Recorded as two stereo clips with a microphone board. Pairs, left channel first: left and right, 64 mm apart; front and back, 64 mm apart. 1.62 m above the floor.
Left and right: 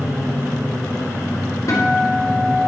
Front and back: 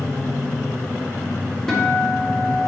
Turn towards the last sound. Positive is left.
turn(degrees=85)